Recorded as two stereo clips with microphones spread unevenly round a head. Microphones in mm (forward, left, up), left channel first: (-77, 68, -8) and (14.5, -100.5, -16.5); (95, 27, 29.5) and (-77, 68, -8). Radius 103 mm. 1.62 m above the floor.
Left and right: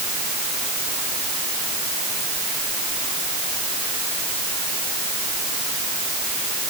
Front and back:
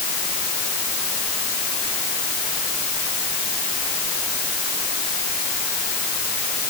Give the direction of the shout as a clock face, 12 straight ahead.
I don't hear a shout.